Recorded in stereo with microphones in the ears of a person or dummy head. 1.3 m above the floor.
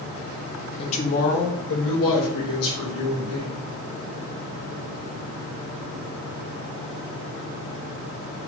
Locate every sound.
0.8 s a woman speaking: 30° left (ahead or behind), 0.7 m; by 3.6 s 80° left, 1.9 m